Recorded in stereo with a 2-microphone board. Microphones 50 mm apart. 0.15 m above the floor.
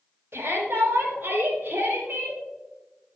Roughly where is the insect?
I don't hear an insect.